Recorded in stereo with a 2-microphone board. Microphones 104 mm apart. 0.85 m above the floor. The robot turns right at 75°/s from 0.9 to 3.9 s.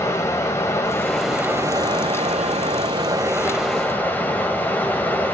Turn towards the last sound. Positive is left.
turn(degrees=20)